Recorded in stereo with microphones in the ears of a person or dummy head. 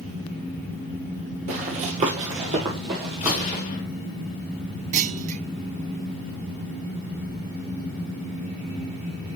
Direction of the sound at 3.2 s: 35° left (ahead or behind).